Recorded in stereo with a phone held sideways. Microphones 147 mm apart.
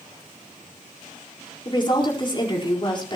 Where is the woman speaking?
35° left (ahead or behind), 5 m.